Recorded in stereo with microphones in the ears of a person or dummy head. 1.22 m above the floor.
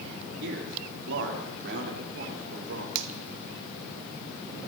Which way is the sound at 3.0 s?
60° right (ahead or behind).